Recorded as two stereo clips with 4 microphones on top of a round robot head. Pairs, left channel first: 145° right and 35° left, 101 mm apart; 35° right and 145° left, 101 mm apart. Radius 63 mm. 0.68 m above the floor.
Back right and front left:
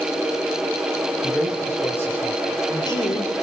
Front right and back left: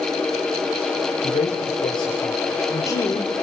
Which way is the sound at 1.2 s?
60° right.